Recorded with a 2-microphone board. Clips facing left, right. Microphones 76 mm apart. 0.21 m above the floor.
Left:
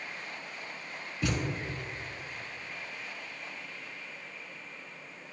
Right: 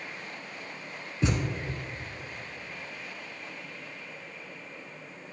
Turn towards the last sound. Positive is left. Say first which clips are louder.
# right 3 dB
turn(degrees=-25)  # may be behind; listen again after turning